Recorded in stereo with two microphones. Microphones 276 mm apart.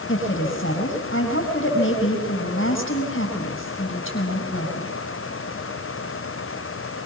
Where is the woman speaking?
45° left (ahead or behind), 7 m.